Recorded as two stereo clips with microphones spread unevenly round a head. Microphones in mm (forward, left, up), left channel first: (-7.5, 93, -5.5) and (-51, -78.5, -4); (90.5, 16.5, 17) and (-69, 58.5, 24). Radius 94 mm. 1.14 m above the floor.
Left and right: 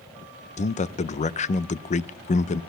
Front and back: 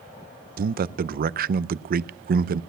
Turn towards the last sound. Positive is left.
turn(degrees=130)